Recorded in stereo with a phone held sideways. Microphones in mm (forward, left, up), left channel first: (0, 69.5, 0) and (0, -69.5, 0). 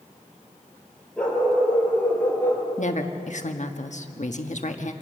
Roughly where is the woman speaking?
Left.